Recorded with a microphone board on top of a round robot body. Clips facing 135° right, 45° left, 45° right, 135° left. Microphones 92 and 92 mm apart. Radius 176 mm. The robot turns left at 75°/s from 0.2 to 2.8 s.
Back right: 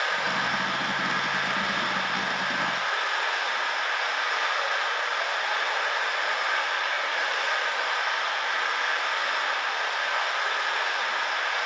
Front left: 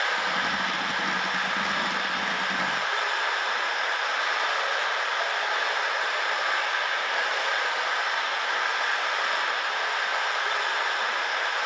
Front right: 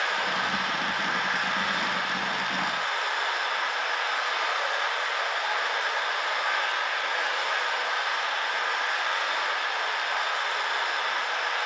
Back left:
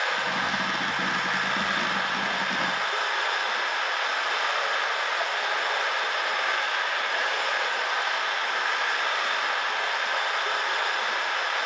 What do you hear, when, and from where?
0.0 s running water: 45° right, 2.5 m; by 11.7 s 120° left, 2.5 m